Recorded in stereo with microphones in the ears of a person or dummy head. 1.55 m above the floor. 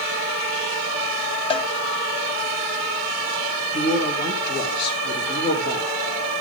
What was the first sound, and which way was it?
A cowbell, 30° left (ahead or behind).